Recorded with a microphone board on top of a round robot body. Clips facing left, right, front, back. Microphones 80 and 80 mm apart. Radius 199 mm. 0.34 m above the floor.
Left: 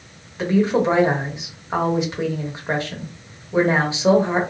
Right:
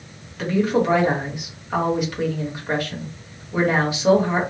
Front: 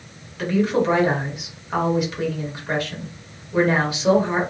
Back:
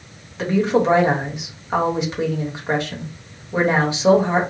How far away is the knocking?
No knocking in this recording.